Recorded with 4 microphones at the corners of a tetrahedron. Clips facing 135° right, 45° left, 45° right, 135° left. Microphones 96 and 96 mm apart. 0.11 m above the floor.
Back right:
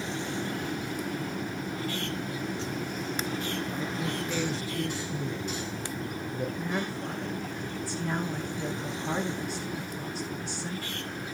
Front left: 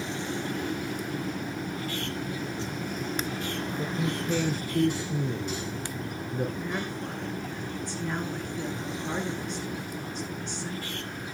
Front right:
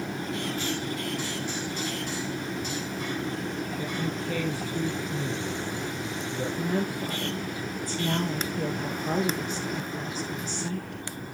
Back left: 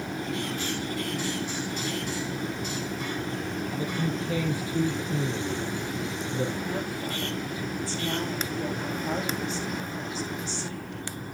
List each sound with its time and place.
3.8 s a man speaking: 55° left, 2 m
6.6 s a woman speaking: 50° right, 1.5 m